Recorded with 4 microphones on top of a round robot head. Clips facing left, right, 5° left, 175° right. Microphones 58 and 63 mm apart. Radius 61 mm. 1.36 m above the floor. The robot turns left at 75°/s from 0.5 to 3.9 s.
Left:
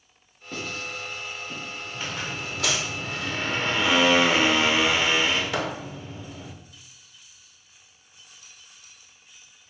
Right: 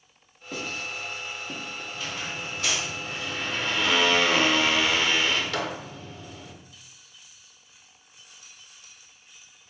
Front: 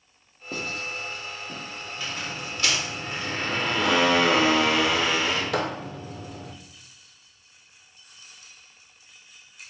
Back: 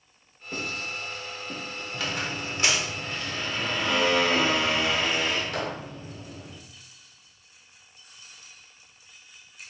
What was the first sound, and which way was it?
Writing, 5° right.